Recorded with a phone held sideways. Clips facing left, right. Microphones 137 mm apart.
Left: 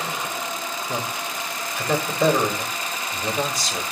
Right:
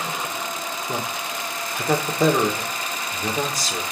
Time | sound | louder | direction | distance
0.9 | a man speaking | right 1 dB | 45° right (ahead or behind) | 2.5 m